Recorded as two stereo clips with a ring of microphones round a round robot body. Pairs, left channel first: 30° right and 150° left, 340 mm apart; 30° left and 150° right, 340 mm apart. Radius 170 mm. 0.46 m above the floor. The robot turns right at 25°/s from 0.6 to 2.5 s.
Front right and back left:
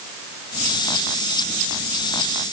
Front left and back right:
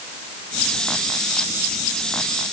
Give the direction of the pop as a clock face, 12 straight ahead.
I don't hear a pop.